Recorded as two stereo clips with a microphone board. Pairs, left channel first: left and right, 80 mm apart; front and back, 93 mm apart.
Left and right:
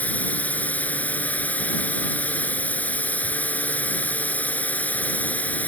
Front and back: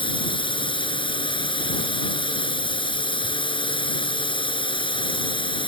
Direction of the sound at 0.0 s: 20° left.